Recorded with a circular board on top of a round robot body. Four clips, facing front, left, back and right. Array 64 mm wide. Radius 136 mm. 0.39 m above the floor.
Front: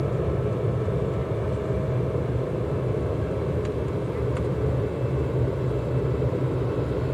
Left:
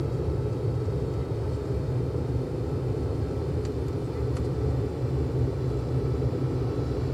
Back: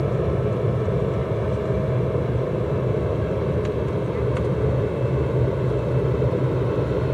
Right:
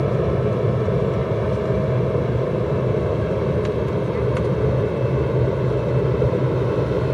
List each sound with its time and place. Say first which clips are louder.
0.0 s an aircraft: right 10 dB, back 3 dB; 100° right; by 7.2 s 105° right